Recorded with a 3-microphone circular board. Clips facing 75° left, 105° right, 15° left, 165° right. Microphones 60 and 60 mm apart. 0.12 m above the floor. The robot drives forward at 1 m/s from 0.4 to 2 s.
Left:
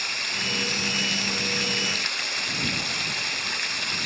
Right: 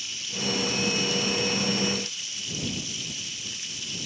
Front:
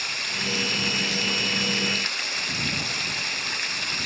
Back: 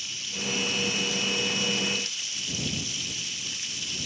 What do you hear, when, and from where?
0.0 s running water: 45° left